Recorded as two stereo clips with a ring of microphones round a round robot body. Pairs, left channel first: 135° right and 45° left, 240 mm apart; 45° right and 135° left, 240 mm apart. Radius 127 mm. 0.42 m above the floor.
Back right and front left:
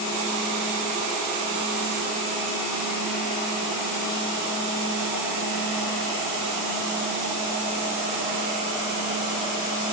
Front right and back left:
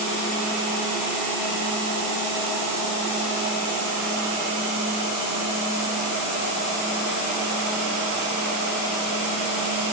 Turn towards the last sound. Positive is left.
No sound to turn to.